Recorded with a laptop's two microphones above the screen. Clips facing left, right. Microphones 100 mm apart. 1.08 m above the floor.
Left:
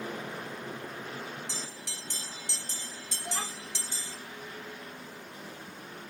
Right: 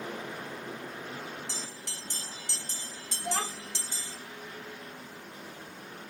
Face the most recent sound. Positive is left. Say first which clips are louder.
# right 5 dB
turn(degrees=-85)